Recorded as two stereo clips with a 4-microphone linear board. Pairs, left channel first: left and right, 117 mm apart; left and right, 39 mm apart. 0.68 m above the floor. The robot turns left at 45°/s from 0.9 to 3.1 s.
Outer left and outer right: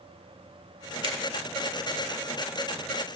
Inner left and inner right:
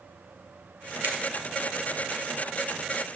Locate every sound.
1.0 s a finger snap: 55° right (ahead or behind), 1.6 m; by 1.1 s 60° right (ahead or behind), 1.6 m